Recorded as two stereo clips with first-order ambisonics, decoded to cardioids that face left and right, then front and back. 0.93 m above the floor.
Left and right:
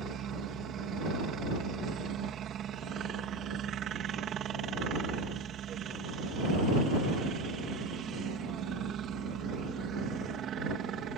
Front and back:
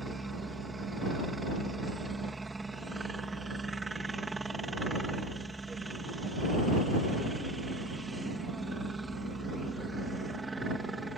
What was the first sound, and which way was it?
A helicopter, 105° right.